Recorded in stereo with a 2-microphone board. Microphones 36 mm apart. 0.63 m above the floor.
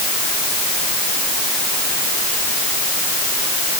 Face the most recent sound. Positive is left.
No sound to turn to.